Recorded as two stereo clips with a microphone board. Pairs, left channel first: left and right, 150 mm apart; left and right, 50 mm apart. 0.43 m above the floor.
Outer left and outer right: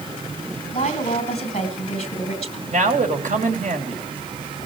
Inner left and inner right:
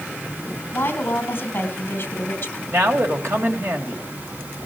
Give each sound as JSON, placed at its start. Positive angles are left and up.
{"t": 0.7, "sound": "a woman speaking", "side_deg": 45, "distance_m": 3.0}
{"t": 2.7, "sound": "a man speaking", "side_deg": -60, "distance_m": 2.5}